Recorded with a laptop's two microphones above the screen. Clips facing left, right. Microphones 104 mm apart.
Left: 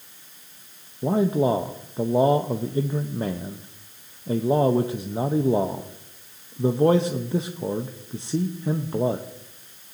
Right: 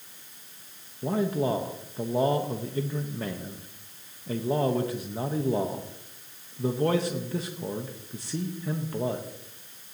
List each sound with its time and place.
1.0 s a man speaking: 25° left (ahead or behind), 0.7 m